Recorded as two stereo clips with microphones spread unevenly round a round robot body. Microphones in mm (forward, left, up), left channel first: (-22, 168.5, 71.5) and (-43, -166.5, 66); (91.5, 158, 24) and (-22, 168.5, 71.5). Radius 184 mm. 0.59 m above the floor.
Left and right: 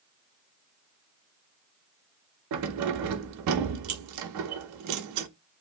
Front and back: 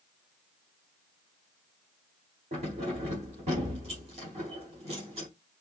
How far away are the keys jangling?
About 0.6 m.